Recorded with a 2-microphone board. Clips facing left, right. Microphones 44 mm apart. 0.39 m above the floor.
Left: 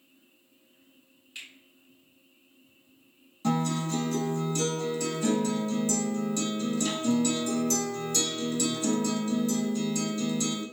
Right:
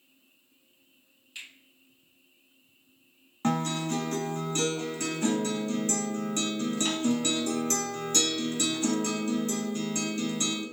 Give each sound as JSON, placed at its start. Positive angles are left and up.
{"t": 1.4, "sound": "a finger snap", "side_deg": 5, "distance_m": 1.9}
{"t": 3.4, "sound": "a guitar", "side_deg": -50, "distance_m": 0.7}